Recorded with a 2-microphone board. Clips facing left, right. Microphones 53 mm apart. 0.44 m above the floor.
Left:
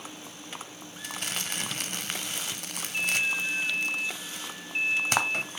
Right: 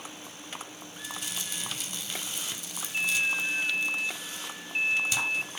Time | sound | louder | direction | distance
1.0 | crumpling | left 4 dB | 60° left (ahead or behind) | 0.6 m